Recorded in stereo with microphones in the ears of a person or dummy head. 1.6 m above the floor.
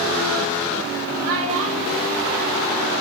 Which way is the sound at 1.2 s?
85° right.